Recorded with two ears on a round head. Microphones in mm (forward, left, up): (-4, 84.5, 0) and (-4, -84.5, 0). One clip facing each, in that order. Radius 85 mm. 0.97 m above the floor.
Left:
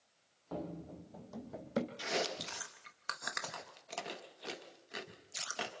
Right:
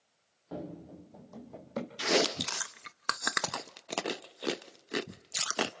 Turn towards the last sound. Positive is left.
turn(degrees=-65)  # may be behind; listen again after turning